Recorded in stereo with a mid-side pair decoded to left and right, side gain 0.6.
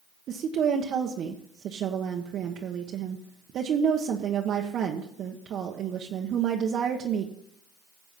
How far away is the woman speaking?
About 1.2 m.